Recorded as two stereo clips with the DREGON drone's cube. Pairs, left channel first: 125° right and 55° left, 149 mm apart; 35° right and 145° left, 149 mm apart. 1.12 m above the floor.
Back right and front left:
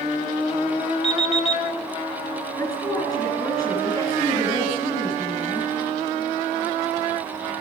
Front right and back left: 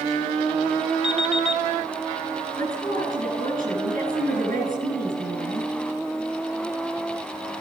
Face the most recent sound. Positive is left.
turn(degrees=170)